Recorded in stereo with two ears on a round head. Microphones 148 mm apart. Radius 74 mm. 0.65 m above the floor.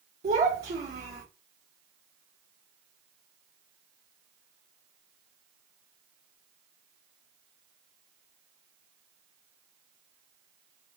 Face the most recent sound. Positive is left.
turn(degrees=-45)  # may be behind; listen again after turning